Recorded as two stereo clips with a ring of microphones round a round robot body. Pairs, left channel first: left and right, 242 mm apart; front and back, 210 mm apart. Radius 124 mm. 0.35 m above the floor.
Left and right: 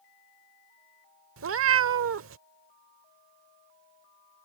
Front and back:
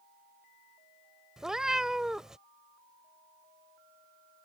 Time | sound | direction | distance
1.4 | a cat meowing | 95° right | ?